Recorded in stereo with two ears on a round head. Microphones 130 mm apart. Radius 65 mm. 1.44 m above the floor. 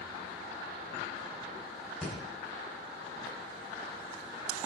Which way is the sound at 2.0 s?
5° left (ahead or behind).